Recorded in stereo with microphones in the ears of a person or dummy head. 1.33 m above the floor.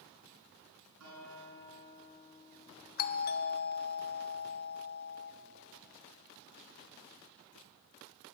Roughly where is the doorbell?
Left.